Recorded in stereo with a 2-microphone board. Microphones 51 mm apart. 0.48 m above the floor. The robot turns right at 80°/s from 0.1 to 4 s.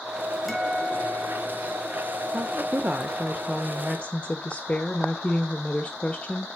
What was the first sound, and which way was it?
A guitar, straight ahead.